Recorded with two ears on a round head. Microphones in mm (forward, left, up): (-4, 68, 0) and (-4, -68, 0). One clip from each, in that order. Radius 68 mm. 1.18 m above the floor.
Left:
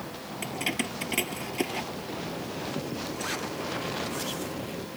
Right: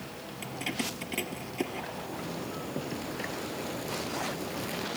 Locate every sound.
0.4 s keys jangling: 20° left (ahead or behind); by 1.8 s 25° left (ahead or behind)
1.9 s a zipper: 45° right (ahead or behind)